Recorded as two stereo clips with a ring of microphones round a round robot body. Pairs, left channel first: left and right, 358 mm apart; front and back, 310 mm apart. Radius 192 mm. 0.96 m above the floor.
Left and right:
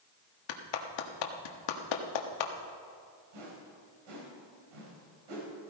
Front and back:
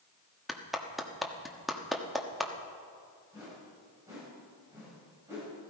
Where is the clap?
90° left, 1.4 m.